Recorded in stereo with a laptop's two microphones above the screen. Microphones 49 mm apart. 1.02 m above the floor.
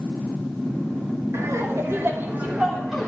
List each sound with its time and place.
1.3 s laughter: 70° right (ahead or behind), 2 m; by 3.1 s 5° left (ahead or behind), 1.3 m